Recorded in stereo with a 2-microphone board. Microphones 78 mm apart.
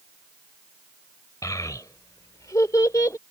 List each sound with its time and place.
1.4 s a child speaking: 50° left (ahead or behind); by 3.2 s 40° left (ahead or behind)